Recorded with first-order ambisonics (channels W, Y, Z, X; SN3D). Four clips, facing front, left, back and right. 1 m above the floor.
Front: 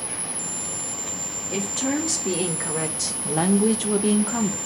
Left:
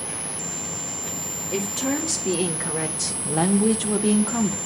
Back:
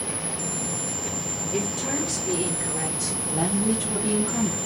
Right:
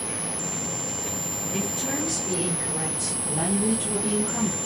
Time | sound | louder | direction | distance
1.5 | a woman speaking | left 4 dB, front 3 dB | 45° left | 2 m